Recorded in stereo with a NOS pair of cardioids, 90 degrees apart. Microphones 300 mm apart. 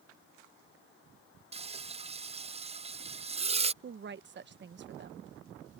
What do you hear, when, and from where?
1.5 s frying: 20° right
3.8 s a woman speaking: 40° right